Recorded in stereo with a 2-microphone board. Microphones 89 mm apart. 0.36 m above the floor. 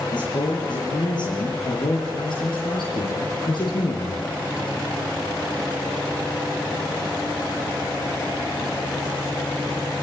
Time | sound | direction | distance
0.1 | a man speaking | 55° left (ahead or behind) | 7.5 m